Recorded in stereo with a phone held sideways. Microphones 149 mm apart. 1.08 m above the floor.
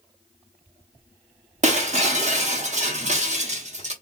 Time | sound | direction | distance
1.6 | breaking glass | 50° right (ahead or behind) | 0.9 m